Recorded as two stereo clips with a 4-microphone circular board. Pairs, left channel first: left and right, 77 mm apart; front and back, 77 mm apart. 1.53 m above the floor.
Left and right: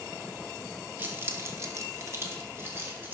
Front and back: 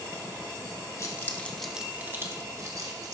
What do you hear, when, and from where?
1.0 s keys jangling: 30° right, 1.1 m; by 3.1 s 150° right, 2.0 m